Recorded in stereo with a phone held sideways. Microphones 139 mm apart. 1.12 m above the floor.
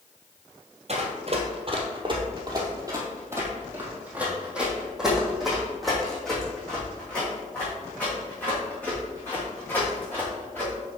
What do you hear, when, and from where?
0.9 s running footsteps: 50° right (ahead or behind), 1.7 m; by 10.7 s 15° left (ahead or behind), 5.5 m